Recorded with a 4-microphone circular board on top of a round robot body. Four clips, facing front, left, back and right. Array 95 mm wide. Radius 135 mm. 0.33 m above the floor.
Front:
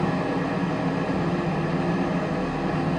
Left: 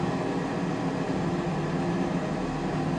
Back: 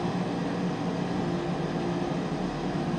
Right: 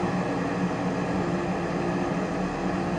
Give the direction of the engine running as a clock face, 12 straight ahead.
1 o'clock.